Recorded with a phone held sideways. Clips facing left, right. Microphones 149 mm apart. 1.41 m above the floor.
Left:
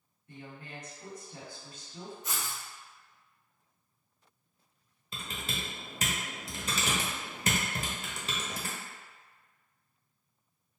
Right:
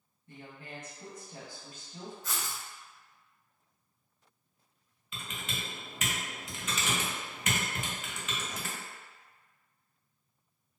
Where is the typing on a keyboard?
40° left (ahead or behind), 0.6 m.